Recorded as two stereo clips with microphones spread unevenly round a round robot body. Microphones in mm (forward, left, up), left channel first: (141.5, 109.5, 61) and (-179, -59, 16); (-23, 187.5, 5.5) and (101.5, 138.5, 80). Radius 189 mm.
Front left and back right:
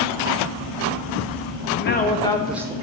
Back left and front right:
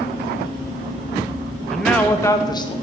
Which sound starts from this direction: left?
A man speaking, at 1.7 s.